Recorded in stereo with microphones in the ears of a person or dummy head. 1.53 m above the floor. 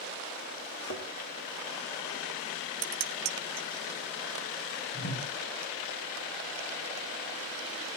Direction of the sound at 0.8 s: 70° left (ahead or behind).